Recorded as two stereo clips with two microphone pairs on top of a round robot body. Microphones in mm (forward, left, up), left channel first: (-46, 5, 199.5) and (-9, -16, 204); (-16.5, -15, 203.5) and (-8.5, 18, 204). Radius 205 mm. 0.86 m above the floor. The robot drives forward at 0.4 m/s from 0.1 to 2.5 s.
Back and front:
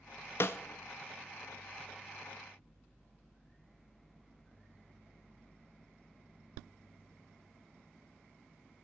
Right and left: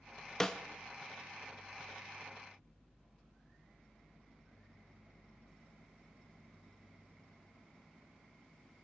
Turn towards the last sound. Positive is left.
turn(degrees=180)